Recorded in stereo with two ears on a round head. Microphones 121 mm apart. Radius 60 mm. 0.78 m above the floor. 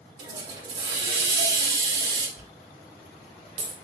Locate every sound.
0.2 s a hiss: 35° right (ahead or behind), 1.0 m
2.4 s a dropped coin: 45° right (ahead or behind), 1.3 m